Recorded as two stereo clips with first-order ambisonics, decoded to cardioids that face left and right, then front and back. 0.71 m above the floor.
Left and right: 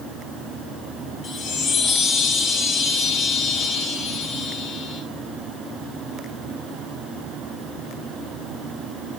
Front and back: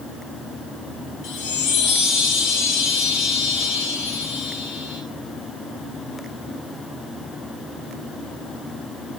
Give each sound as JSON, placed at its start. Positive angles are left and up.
{"t": 1.2, "sound": "a chime", "azimuth_deg": 30, "distance_m": 3.5}